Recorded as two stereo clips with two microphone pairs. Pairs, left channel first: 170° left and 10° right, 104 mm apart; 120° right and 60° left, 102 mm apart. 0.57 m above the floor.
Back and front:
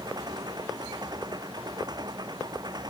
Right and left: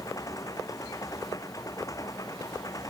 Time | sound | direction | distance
0.0 | an engine running | 60° right | ?